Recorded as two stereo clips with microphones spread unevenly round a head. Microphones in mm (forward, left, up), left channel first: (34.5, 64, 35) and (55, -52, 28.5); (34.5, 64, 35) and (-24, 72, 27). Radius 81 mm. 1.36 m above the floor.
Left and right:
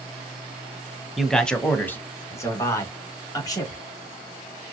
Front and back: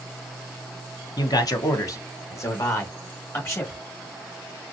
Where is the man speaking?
10° left, 1.1 m; by 3.8 s 40° left, 3 m.